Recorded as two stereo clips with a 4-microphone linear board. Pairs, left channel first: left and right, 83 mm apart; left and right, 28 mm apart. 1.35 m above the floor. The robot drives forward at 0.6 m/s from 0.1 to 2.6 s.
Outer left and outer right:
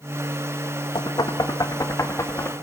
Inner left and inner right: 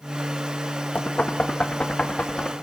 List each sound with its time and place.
0.9 s knocking: 55° left (ahead or behind), 1.2 m; by 2.5 s 30° left (ahead or behind), 1.8 m